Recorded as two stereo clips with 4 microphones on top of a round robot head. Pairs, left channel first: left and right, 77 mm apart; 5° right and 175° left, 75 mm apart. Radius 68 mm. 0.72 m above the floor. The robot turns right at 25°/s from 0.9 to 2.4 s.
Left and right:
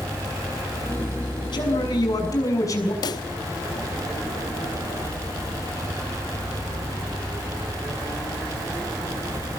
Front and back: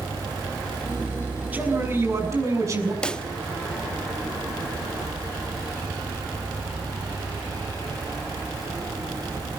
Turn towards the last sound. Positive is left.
turn(degrees=75)